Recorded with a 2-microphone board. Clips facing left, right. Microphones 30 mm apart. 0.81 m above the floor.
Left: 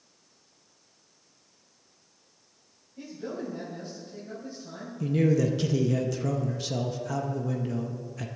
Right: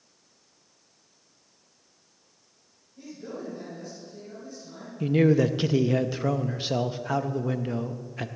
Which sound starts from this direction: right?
A man speaking, at 5.0 s.